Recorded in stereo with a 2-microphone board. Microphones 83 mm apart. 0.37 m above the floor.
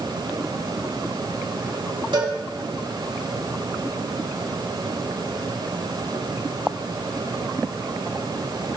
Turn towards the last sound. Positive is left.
turn(degrees=-65)  # may be behind; listen again after turning